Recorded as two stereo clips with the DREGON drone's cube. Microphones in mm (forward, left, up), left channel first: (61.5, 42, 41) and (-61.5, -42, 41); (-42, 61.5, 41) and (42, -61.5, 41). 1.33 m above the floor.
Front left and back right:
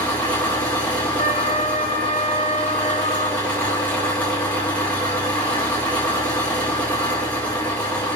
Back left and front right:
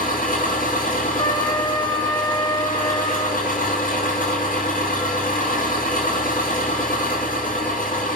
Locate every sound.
0.0 s an engine running: 115° left, 9.5 m
1.2 s a trumpet: 65° left, 2.5 m